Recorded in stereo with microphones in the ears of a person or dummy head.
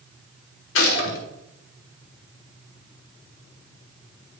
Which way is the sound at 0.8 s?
70° left (ahead or behind).